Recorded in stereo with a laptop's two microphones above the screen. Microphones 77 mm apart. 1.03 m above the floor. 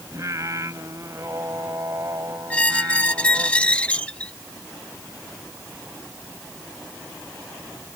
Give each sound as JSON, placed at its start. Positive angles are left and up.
{"t": 0.1, "sound": "singing", "side_deg": -45}
{"t": 2.5, "sound": "a squeak", "side_deg": 15}